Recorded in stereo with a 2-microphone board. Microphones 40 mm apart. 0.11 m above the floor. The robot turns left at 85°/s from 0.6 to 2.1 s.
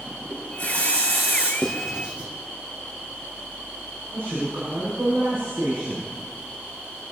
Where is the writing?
10° left (ahead or behind), 3.5 m; by 2.3 s 30° right (ahead or behind), 3.5 m.